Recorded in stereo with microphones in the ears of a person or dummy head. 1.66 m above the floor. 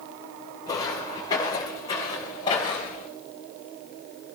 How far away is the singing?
No singing in this recording.